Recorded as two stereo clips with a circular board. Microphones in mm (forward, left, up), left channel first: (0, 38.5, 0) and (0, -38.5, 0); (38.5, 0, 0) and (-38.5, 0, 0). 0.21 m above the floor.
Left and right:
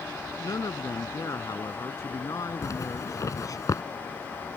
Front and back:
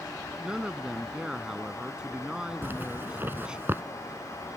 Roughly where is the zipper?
Behind left.